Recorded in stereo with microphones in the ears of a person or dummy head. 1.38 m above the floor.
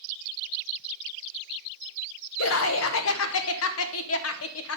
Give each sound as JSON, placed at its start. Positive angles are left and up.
{"t": 2.4, "sound": "laughter", "side_deg": 75, "distance_m": 0.7}